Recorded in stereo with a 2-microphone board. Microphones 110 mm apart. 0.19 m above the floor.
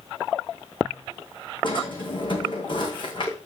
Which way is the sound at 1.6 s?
45° left (ahead or behind).